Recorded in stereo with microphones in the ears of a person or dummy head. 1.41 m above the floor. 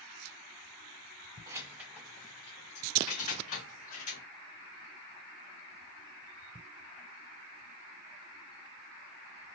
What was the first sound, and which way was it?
Keys jangling, 20° right (ahead or behind).